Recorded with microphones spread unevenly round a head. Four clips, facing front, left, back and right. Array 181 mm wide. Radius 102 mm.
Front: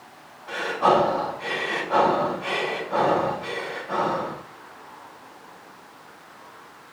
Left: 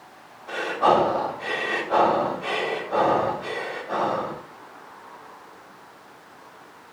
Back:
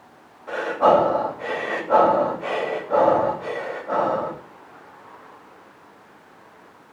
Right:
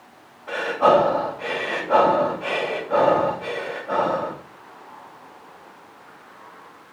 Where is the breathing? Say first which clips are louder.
Right 3 dB, back 3 dB; 145° right, 9 m.